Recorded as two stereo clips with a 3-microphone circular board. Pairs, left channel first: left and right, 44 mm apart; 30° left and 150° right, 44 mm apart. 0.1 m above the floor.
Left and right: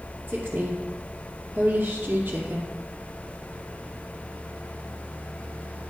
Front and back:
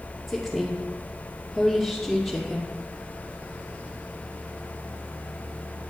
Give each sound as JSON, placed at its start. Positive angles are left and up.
{"t": 0.3, "sound": "a woman speaking", "azimuth_deg": -65, "distance_m": 2.0}